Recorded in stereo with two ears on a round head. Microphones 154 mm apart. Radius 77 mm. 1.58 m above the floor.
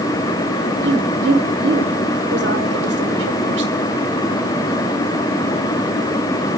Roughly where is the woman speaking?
Right.